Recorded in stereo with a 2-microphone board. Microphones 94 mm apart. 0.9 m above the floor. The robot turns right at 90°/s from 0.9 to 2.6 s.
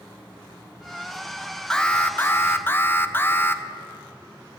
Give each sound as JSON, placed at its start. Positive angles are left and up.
{"t": 1.7, "sound": "an alarm", "side_deg": 5, "distance_m": 0.5}